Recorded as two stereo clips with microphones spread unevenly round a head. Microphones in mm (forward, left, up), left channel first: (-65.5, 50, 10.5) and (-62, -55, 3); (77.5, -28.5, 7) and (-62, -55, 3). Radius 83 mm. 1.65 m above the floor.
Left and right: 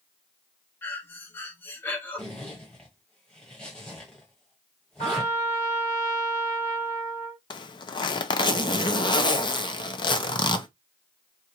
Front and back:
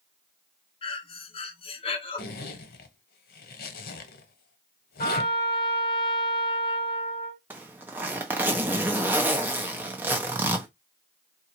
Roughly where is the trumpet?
Ahead left.